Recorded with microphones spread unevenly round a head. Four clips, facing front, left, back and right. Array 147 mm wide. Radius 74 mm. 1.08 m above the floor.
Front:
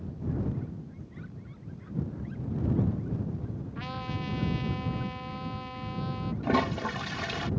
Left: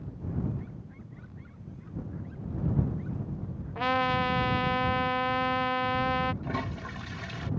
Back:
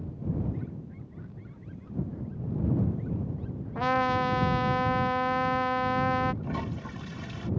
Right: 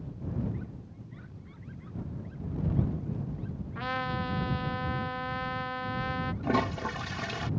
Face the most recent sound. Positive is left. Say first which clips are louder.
# right 6 dB, front 8 dB
turn(degrees=-30)